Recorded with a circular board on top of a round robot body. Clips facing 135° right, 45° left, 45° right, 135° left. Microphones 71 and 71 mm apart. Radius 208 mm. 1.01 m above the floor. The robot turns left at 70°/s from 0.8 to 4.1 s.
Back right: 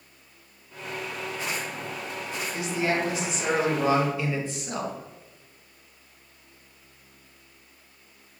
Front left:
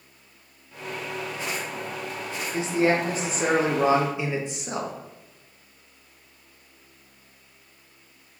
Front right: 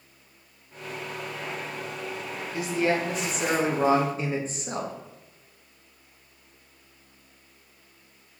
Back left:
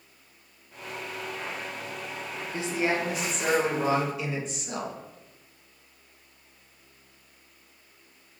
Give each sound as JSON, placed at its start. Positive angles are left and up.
{"t": 2.5, "sound": "a man speaking", "azimuth_deg": 95, "distance_m": 0.9}